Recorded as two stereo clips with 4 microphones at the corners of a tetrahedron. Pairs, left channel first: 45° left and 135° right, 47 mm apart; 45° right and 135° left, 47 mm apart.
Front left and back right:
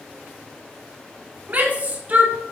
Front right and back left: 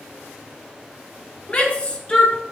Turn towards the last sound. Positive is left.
turn(degrees=-100)